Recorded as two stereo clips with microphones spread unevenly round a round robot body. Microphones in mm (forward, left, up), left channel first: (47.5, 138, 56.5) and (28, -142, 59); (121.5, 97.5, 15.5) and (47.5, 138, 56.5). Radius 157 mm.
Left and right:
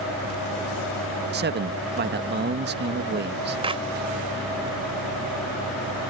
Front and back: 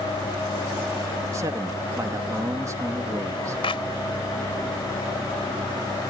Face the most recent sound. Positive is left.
turn(degrees=-25)